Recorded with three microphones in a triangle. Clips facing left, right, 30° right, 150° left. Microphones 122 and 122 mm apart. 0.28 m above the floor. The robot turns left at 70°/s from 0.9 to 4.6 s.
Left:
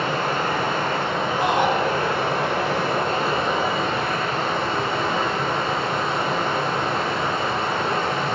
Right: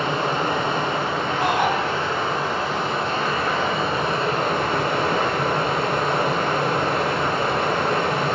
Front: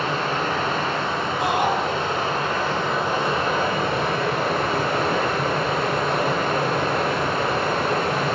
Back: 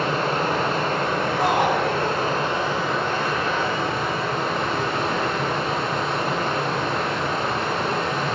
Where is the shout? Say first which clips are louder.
Left 1 dB, back 1 dB; 165° right, 1.8 m; by 1.7 s 170° left, 1.8 m.